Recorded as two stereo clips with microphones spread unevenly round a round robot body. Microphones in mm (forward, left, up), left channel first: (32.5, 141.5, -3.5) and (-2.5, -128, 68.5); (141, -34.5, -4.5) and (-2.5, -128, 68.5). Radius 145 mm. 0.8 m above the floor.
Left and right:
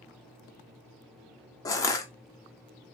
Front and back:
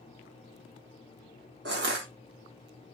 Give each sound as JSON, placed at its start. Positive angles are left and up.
{"t": 1.6, "sound": "crushing", "azimuth_deg": 160, "distance_m": 0.5}